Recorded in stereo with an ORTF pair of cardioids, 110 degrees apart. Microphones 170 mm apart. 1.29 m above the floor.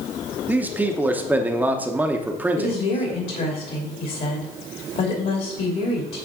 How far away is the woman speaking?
About 2.5 m.